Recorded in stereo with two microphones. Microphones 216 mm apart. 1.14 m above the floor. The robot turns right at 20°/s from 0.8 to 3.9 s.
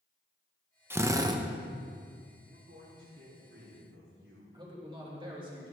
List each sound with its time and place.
0.9 s a drill: 10° right (ahead or behind), 0.8 m; by 1.4 s 20° right (ahead or behind), 0.8 m
2.5 s a man speaking: 55° right (ahead or behind), 4 m; by 4.4 s 80° right, 4 m
4.5 s a man speaking: 20° right (ahead or behind), 3 m